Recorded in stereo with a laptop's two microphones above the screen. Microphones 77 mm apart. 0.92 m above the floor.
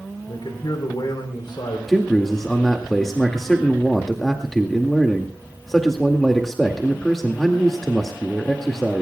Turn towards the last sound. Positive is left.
turn(degrees=5)  # may be behind; listen again after turning